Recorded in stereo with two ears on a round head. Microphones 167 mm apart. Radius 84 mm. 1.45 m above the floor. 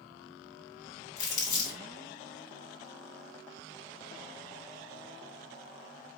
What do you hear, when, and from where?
1.2 s crumpling: 20° left (ahead or behind), 2.5 m